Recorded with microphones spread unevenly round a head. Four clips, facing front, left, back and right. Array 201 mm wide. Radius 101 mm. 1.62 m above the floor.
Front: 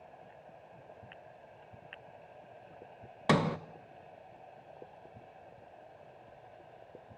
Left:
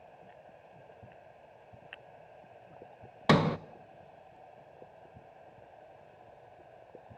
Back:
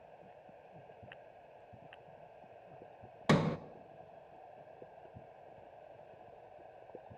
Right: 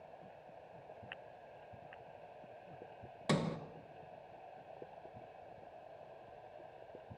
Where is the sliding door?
75° left, 0.8 m.